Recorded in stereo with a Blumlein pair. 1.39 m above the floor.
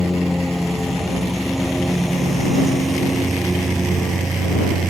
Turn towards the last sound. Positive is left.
turn(degrees=-15)